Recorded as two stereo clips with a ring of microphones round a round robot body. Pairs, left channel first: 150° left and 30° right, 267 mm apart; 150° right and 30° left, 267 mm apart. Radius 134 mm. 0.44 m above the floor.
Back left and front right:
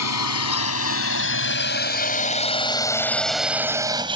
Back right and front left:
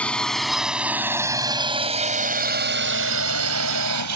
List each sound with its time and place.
0.0 s a drone: 125° left; by 4.2 s 40° left